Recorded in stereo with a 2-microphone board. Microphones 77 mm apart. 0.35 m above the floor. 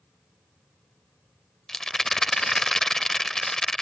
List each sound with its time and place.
1.7 s a rattle: 5° left (ahead or behind)